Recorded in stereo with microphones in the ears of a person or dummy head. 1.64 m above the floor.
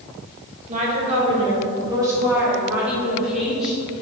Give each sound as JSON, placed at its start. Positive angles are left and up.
{"t": 0.7, "sound": "a woman speaking", "side_deg": -45, "distance_m": 2.5}